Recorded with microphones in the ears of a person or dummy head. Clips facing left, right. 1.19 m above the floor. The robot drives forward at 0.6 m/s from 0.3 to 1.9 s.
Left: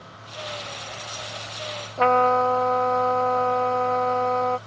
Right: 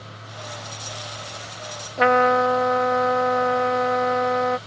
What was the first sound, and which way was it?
A trumpet, 15° right (ahead or behind).